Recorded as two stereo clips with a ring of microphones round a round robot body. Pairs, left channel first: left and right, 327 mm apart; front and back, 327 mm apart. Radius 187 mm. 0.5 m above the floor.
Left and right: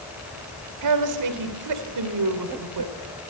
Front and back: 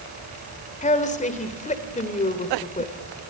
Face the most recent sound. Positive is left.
turn(degrees=-65)